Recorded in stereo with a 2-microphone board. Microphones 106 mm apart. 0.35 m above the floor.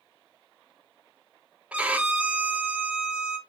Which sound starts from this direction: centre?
A violin, at 1.7 s.